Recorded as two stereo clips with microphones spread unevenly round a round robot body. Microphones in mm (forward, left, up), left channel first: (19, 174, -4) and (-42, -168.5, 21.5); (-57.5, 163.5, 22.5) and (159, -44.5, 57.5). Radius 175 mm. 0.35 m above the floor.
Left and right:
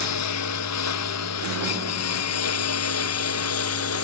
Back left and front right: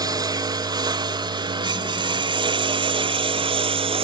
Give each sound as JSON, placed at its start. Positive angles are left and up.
{"t": 0.0, "sound": "a lawn mower", "azimuth_deg": 35}